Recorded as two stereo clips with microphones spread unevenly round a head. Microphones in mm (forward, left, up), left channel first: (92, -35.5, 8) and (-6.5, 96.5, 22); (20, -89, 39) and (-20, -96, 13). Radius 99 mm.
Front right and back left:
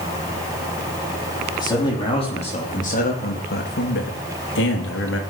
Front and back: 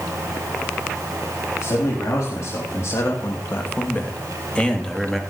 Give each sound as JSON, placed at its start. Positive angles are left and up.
{"t": 1.6, "sound": "a man speaking", "azimuth_deg": 15, "distance_m": 4.0}